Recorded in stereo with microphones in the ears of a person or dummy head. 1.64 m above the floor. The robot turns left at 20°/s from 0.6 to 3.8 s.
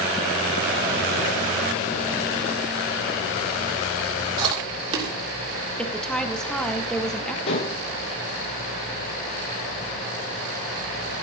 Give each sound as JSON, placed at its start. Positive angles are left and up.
{"t": 4.4, "sound": "chewing", "side_deg": -30, "distance_m": 3.5}
{"t": 5.8, "sound": "a woman speaking", "side_deg": 0, "distance_m": 1.6}
{"t": 7.5, "sound": "dishes clattering", "side_deg": 30, "distance_m": 0.9}